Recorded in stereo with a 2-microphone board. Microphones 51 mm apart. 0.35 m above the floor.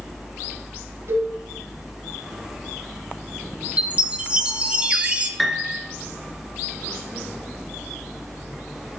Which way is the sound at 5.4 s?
Centre (ahead or behind).